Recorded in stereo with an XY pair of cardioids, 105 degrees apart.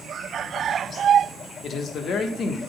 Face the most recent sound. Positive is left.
turn(degrees=60)